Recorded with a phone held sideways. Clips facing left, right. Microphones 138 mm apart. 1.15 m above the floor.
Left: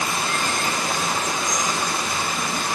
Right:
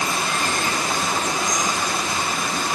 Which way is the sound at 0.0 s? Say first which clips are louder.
Right 1 dB; 70° right (ahead or behind).